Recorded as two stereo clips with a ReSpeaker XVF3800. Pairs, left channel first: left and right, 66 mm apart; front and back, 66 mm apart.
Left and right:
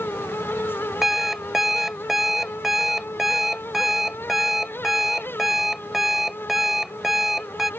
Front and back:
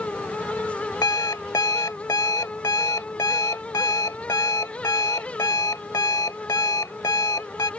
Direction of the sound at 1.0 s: 5° right.